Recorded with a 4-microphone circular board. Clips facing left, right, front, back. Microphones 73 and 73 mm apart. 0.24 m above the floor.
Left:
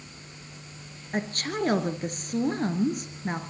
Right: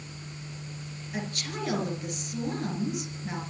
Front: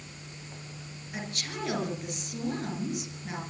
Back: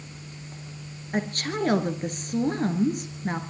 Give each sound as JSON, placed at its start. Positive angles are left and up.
{"t": 1.1, "sound": "a woman speaking", "azimuth_deg": 135, "distance_m": 3.0}